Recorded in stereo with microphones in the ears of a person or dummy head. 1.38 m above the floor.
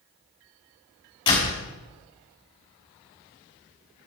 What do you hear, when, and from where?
1.3 s a door slam: 25° left (ahead or behind), 5.5 m